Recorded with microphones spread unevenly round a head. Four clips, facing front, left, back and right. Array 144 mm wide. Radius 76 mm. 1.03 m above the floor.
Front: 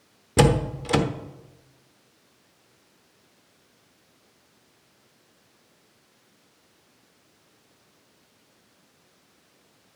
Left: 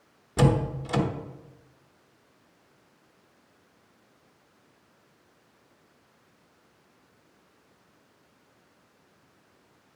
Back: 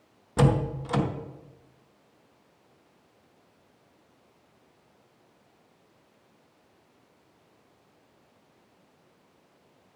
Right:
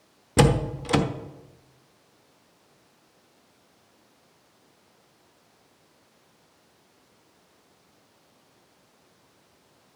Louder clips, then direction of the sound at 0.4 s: Right 3 dB, front 4 dB; 40° right.